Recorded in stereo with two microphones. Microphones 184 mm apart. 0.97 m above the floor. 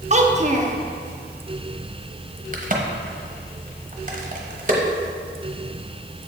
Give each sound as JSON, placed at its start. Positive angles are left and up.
{"t": 0.1, "sound": "a child speaking", "side_deg": -40, "distance_m": 0.7}
{"t": 2.5, "sound": "a crack", "side_deg": -45, "distance_m": 0.9}